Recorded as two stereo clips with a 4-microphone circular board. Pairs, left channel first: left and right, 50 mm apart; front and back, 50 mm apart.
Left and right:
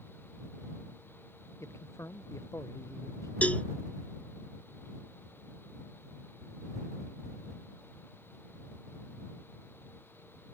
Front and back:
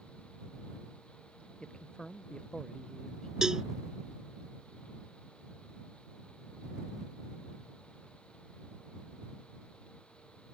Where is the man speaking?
70° left.